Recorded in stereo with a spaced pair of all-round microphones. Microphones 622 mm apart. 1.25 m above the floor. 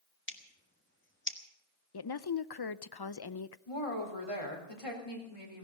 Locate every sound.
0.3 s scissors: 20° left (ahead or behind), 1.4 m
1.9 s a woman speaking: 40° left (ahead or behind), 0.5 m
3.7 s a woman speaking: 55° left (ahead or behind), 3.5 m